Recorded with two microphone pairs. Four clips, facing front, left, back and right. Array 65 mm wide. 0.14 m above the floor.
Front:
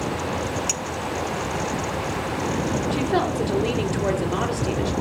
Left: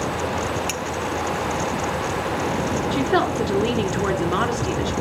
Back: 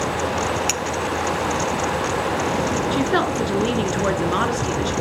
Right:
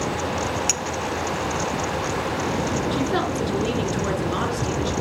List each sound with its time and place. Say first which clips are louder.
0.7 s a clink: left 1 dB, back 5 dB; straight behind, 0.7 m
2.9 s a woman speaking: left 3 dB, back 2 dB; 145° left, 1.7 m